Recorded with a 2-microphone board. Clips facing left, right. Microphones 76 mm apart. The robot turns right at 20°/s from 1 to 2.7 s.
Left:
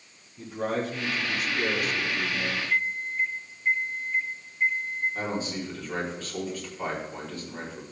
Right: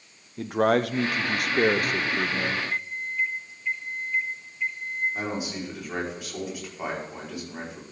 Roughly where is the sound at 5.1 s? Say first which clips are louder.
Even; centre.